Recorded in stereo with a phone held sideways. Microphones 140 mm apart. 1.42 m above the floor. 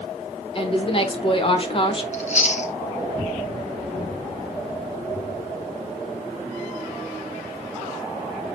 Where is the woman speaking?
35° left (ahead or behind), 1.1 m.